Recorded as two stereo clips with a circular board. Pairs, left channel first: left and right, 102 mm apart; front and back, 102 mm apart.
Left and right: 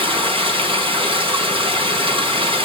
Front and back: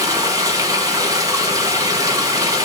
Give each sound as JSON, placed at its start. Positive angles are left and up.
{"t": 0.0, "sound": "running water", "azimuth_deg": -120, "distance_m": 5.0}